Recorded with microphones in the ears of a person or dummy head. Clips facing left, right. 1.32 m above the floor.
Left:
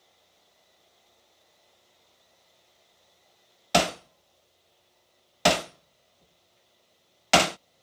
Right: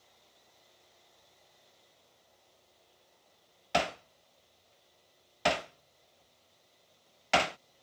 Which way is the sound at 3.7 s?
55° left (ahead or behind).